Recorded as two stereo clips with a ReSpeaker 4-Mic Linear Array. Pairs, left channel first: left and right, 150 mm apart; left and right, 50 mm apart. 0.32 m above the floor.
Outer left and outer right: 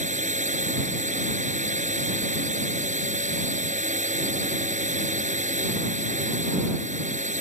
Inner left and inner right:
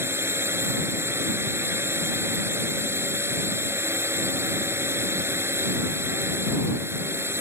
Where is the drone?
55° right (ahead or behind).